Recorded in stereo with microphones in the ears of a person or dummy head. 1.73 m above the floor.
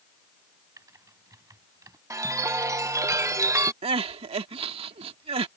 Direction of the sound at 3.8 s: 35° right (ahead or behind).